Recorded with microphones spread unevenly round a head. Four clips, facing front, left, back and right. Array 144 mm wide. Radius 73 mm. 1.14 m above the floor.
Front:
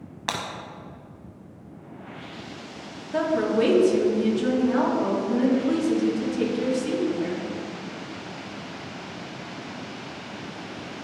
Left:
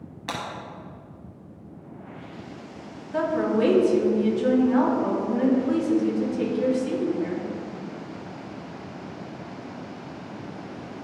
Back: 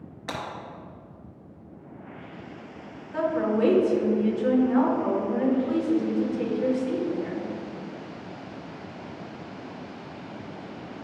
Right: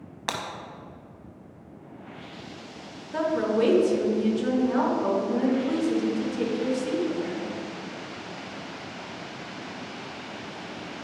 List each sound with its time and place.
0.3 s breaking glass: 50° right, 1.2 m
3.1 s a woman speaking: 25° right, 3 m